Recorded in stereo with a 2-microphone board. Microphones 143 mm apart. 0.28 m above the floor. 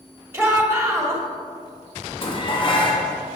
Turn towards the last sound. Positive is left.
turn(degrees=40)  # may be behind; listen again after turning